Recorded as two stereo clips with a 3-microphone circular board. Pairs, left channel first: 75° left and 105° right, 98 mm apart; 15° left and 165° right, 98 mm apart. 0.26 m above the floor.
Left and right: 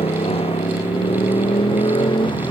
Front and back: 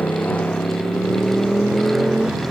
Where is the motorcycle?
90° left; by 2.5 s 115° left.